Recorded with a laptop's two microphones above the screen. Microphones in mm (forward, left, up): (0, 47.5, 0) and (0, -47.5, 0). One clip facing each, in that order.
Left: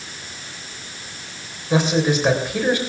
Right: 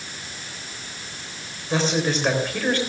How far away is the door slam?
I don't hear a door slam.